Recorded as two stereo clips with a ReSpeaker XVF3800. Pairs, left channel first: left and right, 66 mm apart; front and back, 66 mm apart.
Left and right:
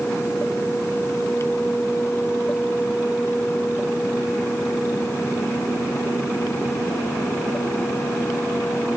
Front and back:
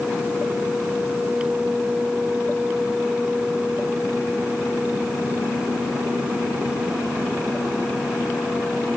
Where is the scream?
I don't hear a scream.